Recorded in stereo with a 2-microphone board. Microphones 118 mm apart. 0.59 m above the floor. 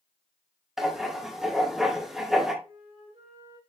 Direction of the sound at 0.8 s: 5° right (ahead or behind).